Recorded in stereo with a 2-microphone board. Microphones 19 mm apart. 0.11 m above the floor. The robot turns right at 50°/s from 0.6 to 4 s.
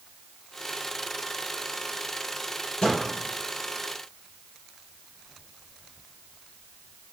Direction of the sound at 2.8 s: 50° left (ahead or behind).